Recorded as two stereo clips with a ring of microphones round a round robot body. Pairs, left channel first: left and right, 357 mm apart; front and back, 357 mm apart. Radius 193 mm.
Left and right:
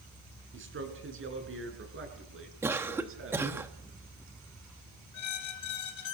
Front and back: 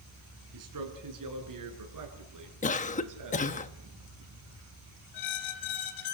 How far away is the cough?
About 1.0 m.